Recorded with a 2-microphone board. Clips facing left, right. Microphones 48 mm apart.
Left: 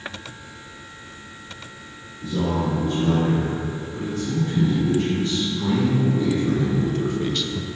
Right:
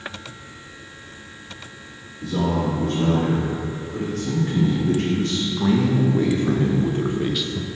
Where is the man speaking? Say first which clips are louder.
Right 1 dB; 80° right, 3 m; by 7.7 s 5° left (ahead or behind), 0.6 m.